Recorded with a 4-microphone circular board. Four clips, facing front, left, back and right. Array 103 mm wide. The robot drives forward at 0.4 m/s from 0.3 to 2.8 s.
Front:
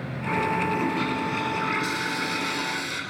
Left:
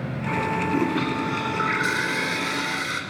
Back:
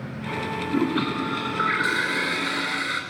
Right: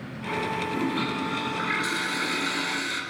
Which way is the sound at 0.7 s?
170° left.